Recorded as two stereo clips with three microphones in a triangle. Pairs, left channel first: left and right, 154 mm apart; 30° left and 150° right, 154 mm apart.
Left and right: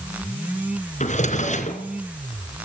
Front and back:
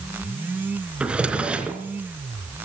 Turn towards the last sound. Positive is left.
turn(degrees=125)